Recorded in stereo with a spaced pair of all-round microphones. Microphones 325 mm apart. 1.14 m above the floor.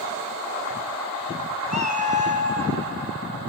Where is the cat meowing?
45° left (ahead or behind), 0.8 m; by 2.8 s 35° left (ahead or behind), 0.6 m.